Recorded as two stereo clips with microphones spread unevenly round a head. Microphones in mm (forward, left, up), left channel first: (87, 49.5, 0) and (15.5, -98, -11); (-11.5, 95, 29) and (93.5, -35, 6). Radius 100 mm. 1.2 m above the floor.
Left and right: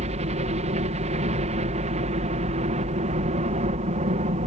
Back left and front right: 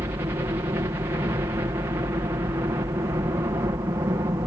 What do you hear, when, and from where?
0.0 s a helicopter: 115° right